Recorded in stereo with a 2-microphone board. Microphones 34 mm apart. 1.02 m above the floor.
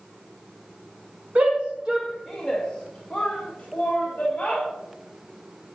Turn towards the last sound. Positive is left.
turn(degrees=45)  # may be behind; listen again after turning